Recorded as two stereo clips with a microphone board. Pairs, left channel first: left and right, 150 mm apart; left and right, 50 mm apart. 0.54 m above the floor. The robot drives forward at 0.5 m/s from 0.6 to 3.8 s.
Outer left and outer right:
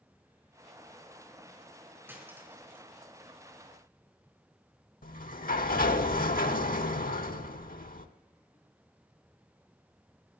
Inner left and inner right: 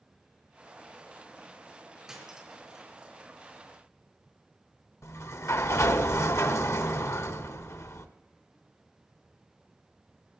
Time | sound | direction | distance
2.1 | cutlery clinking | 15° right (ahead or behind) | 3.5 m
5.0 | a sliding door | 75° left (ahead or behind) | 0.9 m